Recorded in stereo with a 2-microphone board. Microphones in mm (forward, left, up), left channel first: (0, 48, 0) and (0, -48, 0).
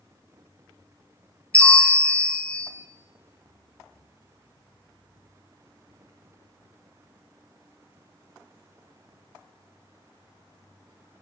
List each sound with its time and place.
1.5 s a bell: 15° left (ahead or behind), 0.9 m